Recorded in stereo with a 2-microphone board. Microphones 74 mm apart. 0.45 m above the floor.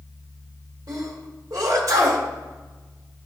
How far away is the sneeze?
About 1.6 m.